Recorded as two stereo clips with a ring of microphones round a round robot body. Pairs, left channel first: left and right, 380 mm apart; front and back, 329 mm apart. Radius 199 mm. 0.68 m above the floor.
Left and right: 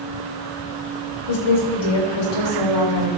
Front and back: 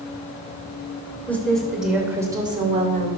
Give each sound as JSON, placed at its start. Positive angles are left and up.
{"t": 1.3, "sound": "a woman speaking", "azimuth_deg": 85, "distance_m": 3.5}